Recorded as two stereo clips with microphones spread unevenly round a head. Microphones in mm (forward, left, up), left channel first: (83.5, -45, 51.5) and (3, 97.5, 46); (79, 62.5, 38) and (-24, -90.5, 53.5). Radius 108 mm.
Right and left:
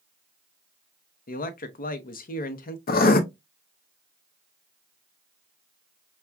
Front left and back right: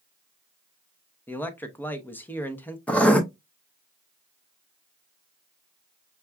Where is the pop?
I don't hear a pop.